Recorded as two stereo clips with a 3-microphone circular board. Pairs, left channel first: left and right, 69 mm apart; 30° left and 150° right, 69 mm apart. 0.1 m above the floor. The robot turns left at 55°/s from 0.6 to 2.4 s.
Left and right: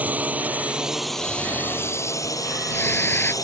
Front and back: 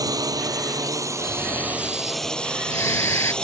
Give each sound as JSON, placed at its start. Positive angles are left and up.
{"t": 0.0, "sound": "a drone", "azimuth_deg": -155}
{"t": 1.2, "sound": "snoring", "azimuth_deg": 115}